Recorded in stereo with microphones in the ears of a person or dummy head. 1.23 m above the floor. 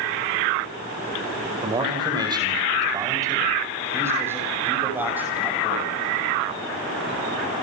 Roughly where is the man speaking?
Right.